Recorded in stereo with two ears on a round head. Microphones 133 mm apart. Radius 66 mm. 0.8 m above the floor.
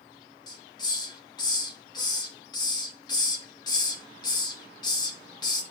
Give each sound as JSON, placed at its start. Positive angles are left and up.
{"t": 0.5, "sound": "a hiss", "side_deg": 30, "distance_m": 1.1}